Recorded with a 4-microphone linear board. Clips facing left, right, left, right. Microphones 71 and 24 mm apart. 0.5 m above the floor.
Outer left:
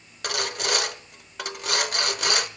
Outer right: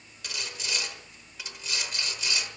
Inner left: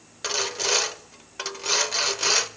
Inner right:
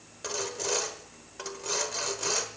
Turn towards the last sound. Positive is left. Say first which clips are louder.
# outer left 11 dB, inner left 7 dB
turn(degrees=65)  # may be behind; listen again after turning